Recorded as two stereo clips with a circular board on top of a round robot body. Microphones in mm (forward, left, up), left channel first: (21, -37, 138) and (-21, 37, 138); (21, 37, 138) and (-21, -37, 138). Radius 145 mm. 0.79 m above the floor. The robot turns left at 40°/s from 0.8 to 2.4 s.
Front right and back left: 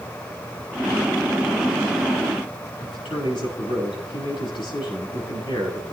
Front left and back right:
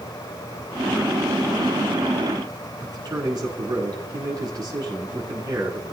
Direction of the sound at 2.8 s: 80° right.